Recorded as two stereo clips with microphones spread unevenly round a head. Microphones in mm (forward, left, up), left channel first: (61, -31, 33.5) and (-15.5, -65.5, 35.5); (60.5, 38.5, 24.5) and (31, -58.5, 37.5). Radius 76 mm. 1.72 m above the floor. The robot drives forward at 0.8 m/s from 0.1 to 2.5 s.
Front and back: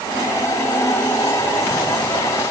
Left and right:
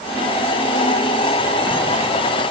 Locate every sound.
Only background noise.